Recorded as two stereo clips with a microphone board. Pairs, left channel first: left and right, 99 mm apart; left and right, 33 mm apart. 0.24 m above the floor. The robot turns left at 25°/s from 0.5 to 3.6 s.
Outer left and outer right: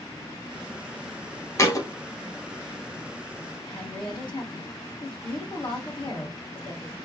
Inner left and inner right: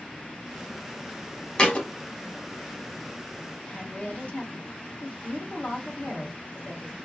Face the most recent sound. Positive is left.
turn(degrees=55)  # may be behind; listen again after turning